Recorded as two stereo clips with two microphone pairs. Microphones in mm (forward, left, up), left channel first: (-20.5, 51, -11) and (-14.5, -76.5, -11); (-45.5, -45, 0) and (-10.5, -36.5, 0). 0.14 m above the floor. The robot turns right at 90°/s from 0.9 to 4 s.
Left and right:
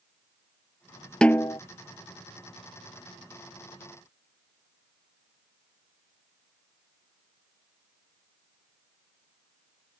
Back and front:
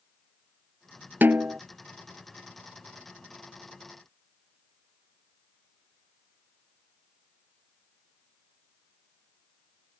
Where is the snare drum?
10° left; by 1.6 s 45° left.